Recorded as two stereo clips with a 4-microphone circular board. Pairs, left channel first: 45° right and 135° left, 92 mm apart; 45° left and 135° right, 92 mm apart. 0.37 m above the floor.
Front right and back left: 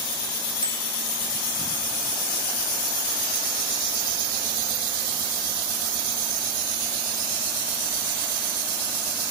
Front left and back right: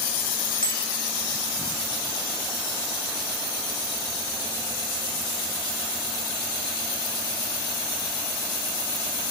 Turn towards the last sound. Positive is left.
turn(degrees=175)